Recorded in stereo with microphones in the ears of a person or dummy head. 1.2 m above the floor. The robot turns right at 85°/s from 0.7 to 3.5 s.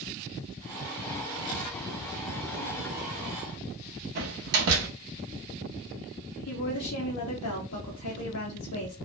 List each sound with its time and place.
4.2 s a door slam: 55° right (ahead or behind), 0.7 m
6.5 s a woman speaking: 85° left, 0.7 m